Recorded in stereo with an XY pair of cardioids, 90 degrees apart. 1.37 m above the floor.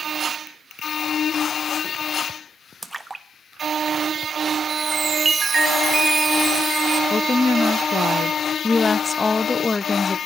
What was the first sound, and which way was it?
A splash, 15° right.